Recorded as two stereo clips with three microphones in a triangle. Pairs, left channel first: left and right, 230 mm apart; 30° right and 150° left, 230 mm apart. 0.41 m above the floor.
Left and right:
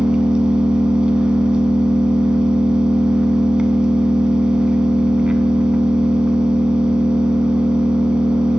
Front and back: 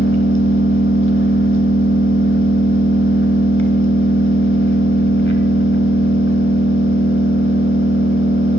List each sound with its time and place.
0.0 s an engine running: 5° right, 0.8 m